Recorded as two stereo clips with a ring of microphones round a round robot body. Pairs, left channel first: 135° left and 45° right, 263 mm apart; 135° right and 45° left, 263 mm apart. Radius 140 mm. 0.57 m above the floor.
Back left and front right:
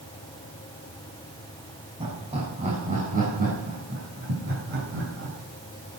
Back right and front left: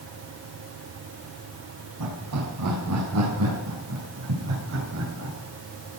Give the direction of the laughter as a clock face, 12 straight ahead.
11 o'clock.